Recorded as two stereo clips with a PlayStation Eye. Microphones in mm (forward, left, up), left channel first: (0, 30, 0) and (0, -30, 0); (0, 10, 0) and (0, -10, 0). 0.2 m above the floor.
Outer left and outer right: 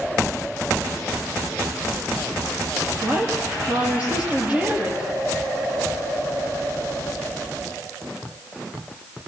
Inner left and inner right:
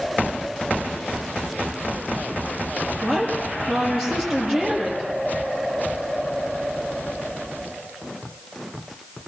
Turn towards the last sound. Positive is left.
turn(degrees=-25)  # may be behind; listen again after turning